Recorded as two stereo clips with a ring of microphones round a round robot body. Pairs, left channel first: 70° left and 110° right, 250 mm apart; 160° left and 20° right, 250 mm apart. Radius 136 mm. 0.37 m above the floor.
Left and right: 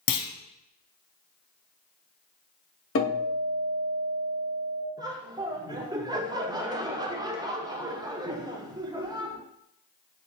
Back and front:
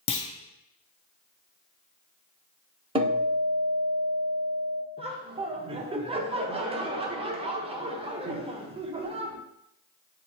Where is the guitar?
40° left, 2 m.